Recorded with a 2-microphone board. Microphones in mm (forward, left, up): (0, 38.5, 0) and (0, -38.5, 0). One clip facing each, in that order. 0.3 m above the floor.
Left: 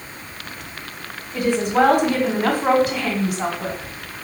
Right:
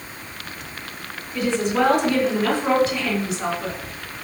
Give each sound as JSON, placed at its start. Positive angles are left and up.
{"t": 1.3, "sound": "a woman speaking", "side_deg": 45, "distance_m": 1.7}